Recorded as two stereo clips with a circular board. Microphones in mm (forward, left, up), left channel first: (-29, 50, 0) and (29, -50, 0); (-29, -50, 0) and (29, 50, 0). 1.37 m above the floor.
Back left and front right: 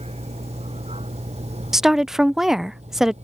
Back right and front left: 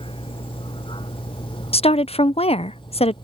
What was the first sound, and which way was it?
A vehicle, 80° right.